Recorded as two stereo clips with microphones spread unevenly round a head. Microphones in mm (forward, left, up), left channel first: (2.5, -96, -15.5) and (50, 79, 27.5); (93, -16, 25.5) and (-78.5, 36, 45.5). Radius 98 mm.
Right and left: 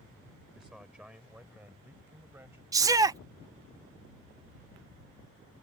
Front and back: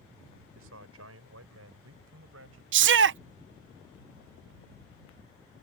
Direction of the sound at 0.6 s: 160° left.